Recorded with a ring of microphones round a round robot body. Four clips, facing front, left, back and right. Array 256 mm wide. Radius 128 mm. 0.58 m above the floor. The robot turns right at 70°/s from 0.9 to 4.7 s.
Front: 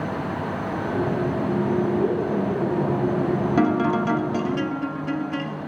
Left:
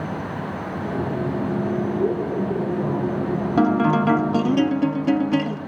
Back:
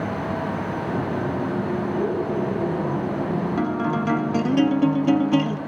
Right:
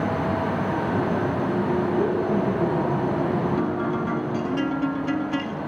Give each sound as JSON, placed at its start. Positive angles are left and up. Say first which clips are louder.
{"t": 1.9, "sound": "a woman speaking", "louder": "even, front 1 dB", "azimuth_deg": -105, "distance_m": 7.5}
{"t": 3.6, "sound": "a guitar", "louder": "left 6 dB, front 5 dB", "azimuth_deg": 65, "distance_m": 0.5}